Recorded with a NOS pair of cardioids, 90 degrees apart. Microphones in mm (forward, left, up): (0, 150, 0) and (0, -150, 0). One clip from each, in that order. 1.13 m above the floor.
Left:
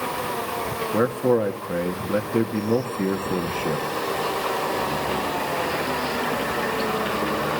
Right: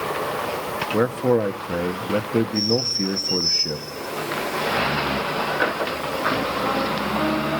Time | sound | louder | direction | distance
0.9 | a man speaking | right 1 dB | 25° right | 1.8 m